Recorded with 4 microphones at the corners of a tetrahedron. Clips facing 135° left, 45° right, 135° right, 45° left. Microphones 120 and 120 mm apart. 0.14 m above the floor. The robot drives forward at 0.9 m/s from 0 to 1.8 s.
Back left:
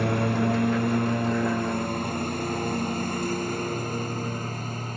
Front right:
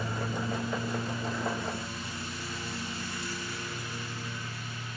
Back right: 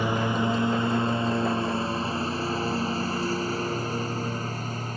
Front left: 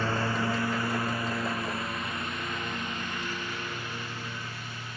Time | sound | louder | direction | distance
0.0 | a lawn mower | back left 10 dB, back right 4 dB | 150° left | ?